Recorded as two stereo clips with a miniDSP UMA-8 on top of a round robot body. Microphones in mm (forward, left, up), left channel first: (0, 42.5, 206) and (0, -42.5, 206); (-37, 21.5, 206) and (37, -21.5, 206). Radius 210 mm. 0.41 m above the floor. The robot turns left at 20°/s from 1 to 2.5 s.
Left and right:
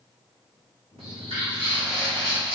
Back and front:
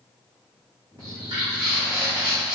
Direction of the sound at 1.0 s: 80° right.